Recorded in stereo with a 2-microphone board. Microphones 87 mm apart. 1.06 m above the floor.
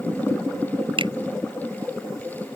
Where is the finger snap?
90° right.